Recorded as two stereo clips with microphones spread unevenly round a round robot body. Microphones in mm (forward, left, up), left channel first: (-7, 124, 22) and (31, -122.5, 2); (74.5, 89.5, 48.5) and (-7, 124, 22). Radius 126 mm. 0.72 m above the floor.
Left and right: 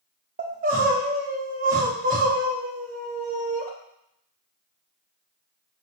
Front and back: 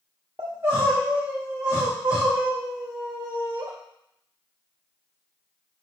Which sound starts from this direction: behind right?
Crying, at 0.4 s.